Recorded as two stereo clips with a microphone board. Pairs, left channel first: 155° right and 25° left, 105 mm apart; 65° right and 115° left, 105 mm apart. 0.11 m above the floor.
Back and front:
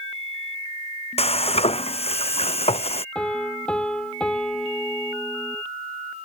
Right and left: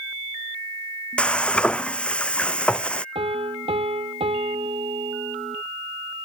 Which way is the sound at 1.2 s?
150° right.